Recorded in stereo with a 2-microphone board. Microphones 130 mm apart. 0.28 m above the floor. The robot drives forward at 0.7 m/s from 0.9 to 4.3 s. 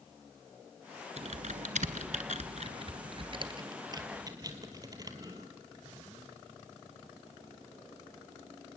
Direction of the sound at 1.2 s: 60° right (ahead or behind).